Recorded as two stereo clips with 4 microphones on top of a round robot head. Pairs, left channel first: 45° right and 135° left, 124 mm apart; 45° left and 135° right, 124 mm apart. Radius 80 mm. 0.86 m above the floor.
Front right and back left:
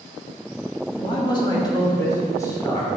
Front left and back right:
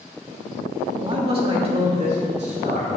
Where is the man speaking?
85° right, 1.5 m; by 2.9 s 110° right, 3 m.